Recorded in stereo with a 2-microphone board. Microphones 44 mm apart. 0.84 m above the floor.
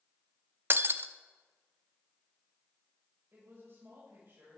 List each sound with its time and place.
0.7 s breaking glass: 50° right (ahead or behind), 0.6 m
3.3 s a woman speaking: 55° right (ahead or behind), 4.5 m